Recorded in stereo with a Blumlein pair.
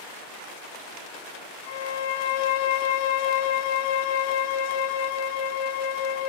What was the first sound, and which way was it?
A violin, 50° left.